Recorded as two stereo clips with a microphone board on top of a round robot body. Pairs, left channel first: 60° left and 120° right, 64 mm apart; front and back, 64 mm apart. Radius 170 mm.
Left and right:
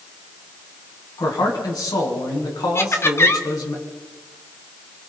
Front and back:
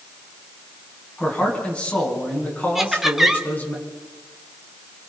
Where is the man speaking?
75° left, 6 m; by 3.8 s 60° left, 6.5 m.